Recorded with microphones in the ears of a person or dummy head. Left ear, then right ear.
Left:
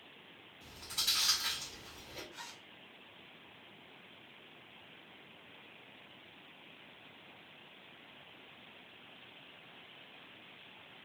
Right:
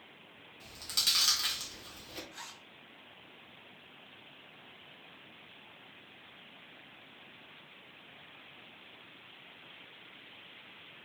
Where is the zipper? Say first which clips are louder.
Right 1 dB; 15° right (ahead or behind), 0.8 m.